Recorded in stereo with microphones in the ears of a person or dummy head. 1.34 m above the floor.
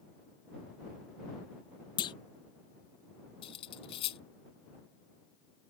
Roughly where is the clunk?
Left.